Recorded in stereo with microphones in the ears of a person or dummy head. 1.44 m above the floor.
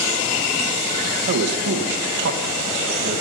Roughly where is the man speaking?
Right.